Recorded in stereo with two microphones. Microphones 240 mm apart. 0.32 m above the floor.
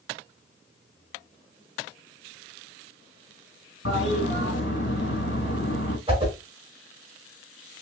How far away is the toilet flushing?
About 2.5 m.